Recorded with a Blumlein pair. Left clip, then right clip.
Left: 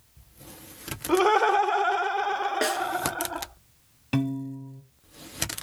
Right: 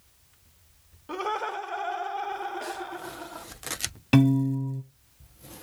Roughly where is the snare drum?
Ahead left.